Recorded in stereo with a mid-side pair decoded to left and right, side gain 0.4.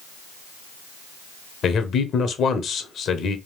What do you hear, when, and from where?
1.6 s a man speaking: 65° left, 1.0 m